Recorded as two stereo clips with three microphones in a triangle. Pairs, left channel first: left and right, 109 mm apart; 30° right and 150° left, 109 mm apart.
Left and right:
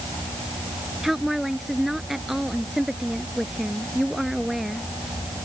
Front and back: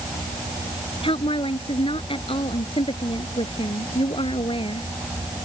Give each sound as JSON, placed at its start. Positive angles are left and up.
{"t": 1.0, "sound": "a woman speaking", "azimuth_deg": 0}